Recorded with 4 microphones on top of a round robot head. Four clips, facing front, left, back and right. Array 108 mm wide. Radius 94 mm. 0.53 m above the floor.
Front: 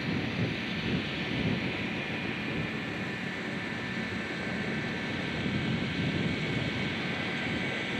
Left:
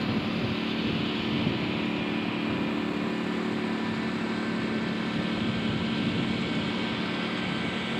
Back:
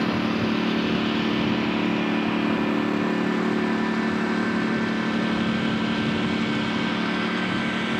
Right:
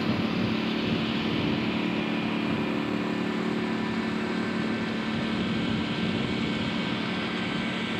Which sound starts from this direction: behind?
A lawn mower, at 0.0 s.